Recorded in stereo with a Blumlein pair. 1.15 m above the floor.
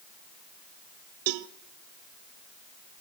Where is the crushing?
No crushing in this recording.